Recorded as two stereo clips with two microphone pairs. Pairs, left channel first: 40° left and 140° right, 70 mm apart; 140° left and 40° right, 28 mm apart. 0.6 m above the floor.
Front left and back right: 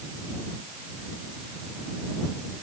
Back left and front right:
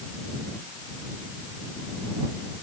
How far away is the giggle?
I don't hear a giggle.